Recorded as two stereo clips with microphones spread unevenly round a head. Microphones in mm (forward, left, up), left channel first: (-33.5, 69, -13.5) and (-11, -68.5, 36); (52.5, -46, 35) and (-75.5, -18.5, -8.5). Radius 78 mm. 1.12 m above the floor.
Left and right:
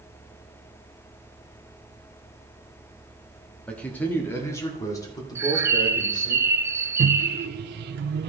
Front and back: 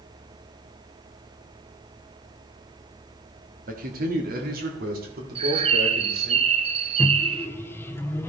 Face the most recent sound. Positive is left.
turn(degrees=-95)